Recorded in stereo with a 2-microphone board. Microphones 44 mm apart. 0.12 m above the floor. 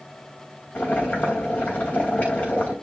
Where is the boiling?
30° left (ahead or behind), 2.5 m.